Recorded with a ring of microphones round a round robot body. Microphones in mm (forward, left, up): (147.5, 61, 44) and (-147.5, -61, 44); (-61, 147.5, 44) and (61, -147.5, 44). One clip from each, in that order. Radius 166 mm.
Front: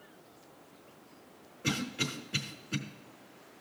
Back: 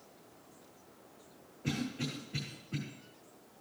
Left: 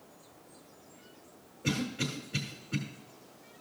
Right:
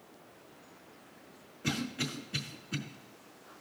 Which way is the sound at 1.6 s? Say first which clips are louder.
Front 5 dB, left 1 dB; 10° right.